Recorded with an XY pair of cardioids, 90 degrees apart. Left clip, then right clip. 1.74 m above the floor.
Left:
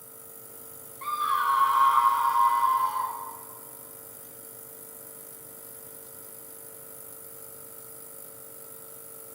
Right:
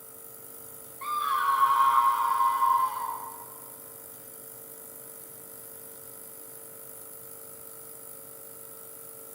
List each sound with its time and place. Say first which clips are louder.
1.0 s a scream: left 1 dB; 5° right, 1.8 m; by 3.2 s 35° left, 3 m